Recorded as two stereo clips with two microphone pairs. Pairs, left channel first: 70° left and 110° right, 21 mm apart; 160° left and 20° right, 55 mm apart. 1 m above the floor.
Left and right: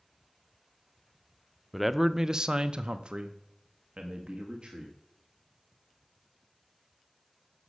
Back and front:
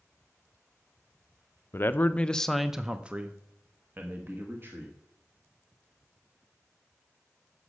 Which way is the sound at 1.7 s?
175° left.